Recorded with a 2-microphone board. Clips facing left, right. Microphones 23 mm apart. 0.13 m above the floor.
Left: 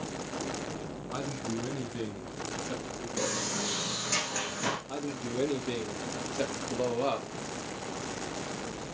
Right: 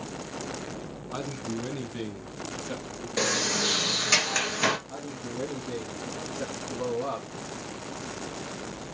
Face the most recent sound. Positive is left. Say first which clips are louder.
# left 2 dB
turn(degrees=65)  # may be behind; listen again after turning